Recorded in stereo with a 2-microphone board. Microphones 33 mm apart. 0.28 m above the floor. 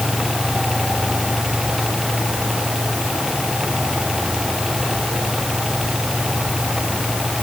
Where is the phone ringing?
No phone ringing in this recording.